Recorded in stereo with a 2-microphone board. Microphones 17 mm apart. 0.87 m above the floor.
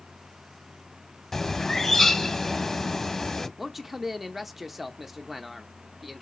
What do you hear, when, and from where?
1.3 s a bird: 25° left (ahead or behind), 0.9 m
3.6 s a man speaking: 10° right (ahead or behind), 0.8 m